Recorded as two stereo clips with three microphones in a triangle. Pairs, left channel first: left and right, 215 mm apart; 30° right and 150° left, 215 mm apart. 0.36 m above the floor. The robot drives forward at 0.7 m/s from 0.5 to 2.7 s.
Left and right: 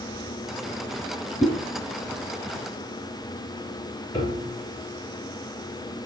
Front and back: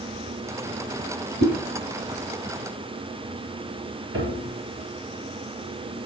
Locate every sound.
1.4 s a whoosh: 170° right, 5 m
4.1 s a piano: 160° left, 2.5 m